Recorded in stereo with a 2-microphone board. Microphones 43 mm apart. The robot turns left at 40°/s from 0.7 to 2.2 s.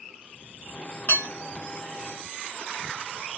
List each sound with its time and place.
1.1 s dishes clattering: 45° left (ahead or behind), 1.0 m; by 1.3 s 40° left (ahead or behind), 1.0 m